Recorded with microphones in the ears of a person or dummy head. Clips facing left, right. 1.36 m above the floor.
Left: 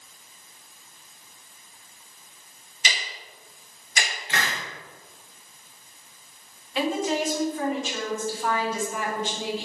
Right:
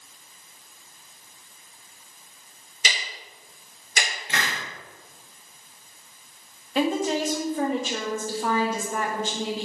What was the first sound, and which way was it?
Ticking, 70° right (ahead or behind).